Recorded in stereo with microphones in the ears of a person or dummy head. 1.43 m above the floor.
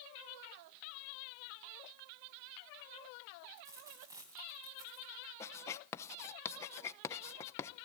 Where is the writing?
15° left (ahead or behind), 0.8 m.